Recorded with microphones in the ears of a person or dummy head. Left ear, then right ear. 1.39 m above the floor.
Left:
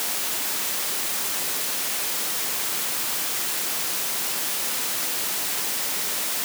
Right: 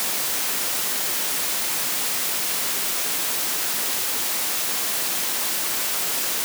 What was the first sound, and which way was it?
Only background noise.